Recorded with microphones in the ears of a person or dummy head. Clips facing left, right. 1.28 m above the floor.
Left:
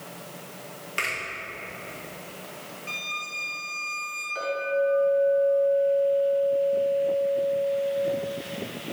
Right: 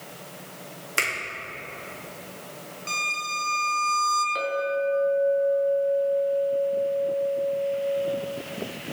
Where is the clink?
65° right (ahead or behind), 1.8 m.